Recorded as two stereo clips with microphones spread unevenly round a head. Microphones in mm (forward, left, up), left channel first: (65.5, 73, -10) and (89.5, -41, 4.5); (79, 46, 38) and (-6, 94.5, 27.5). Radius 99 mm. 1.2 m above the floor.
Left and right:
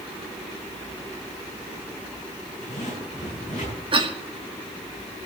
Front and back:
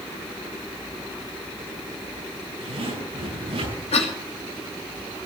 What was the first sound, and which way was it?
A zipper, 165° left.